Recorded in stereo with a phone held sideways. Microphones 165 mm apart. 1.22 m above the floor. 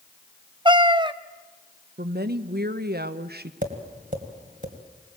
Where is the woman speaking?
75° right (ahead or behind), 1.0 m.